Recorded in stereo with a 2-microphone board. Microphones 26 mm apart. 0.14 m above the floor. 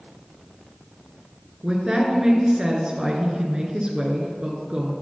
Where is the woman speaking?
35° right (ahead or behind), 1.6 m.